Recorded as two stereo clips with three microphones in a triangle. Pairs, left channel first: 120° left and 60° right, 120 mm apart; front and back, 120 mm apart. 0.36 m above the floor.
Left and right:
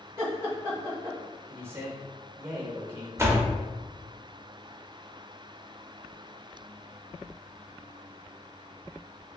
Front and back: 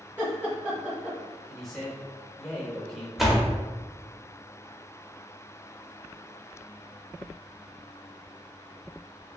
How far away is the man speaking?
About 0.8 m.